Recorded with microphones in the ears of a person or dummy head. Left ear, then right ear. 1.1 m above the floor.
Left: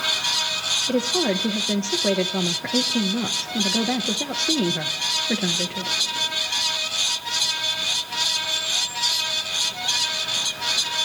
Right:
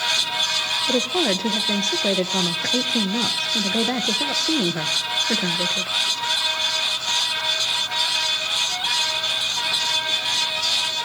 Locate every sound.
0.9 s a woman speaking: 10° right (ahead or behind), 0.7 m